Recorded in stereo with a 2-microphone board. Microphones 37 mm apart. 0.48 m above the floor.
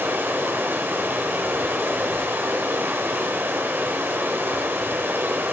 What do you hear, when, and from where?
0.0 s running water: 75° right (ahead or behind), 0.9 m